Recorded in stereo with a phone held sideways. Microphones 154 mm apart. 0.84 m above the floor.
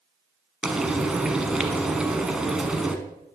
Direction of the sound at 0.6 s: 5° right (ahead or behind).